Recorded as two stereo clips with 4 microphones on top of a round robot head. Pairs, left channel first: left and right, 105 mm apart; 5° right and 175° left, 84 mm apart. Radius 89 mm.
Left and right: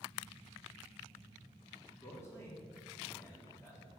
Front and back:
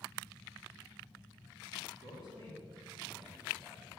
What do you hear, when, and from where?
2.0 s a man speaking: 155° left, 3.5 m